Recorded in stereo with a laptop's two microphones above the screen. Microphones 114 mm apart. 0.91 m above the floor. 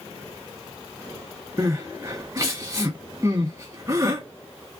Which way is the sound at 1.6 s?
30° right (ahead or behind).